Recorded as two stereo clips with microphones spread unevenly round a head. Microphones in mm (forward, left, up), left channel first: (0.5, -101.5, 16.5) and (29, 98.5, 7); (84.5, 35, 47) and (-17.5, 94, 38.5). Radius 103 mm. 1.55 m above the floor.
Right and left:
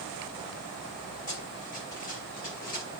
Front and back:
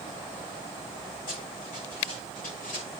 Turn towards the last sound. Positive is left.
turn(degrees=-50)